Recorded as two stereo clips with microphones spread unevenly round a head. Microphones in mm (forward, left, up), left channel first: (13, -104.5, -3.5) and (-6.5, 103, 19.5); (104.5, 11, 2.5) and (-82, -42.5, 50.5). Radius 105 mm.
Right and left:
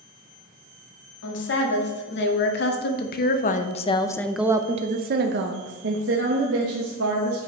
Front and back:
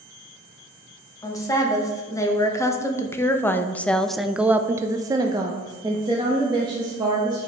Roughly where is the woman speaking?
Ahead right.